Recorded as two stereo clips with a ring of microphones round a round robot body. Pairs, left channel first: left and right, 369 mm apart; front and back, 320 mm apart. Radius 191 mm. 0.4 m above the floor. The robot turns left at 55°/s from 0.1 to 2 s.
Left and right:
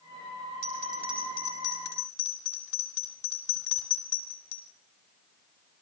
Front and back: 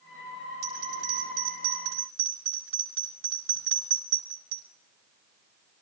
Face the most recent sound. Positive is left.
turn(degrees=130)